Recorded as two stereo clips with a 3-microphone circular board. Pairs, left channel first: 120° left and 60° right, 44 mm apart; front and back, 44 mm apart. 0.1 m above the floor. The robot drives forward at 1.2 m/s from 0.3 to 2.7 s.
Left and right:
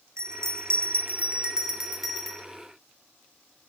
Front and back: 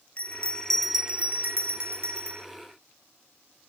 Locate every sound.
0.2 s a bell: 55° right, 1.1 m; by 2.4 s 155° right, 2 m